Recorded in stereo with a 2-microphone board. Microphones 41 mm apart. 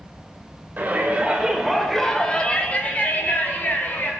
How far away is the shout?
About 1.9 m.